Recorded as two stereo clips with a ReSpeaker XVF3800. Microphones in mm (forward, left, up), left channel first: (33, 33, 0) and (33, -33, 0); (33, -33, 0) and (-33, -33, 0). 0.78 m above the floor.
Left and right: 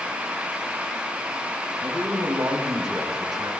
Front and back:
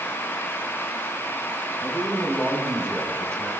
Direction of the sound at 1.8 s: 80° right.